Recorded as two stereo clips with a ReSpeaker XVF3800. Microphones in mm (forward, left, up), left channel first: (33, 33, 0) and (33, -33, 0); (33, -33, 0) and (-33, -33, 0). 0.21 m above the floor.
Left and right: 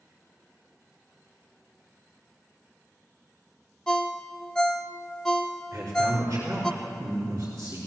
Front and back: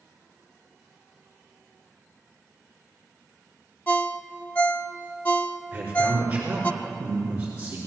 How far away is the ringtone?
About 0.5 m.